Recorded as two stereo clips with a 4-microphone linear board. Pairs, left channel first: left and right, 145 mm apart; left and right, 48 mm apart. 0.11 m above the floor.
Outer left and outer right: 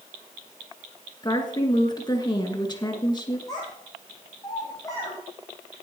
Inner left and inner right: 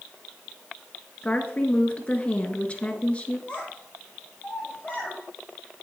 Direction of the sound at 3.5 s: 25° left (ahead or behind).